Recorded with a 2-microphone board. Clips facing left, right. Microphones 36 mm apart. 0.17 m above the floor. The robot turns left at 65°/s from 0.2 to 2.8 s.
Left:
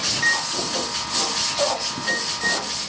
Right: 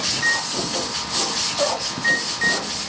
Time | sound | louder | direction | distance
0.1 | a microwave | even | 15° left (ahead or behind) | 3.5 m